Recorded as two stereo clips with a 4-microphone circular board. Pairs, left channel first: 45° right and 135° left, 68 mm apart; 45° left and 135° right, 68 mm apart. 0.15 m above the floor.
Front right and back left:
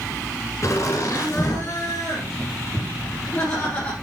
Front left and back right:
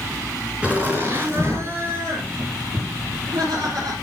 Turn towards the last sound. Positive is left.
turn(degrees=-115)